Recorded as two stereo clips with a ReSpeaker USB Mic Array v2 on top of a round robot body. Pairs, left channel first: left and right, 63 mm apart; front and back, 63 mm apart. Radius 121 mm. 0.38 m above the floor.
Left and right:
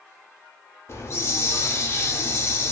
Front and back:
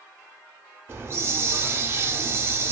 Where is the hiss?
135° left, 0.6 m.